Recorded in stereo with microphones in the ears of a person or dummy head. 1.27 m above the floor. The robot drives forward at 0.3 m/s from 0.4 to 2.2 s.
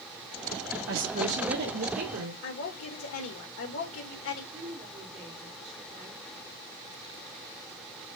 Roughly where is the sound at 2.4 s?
Left.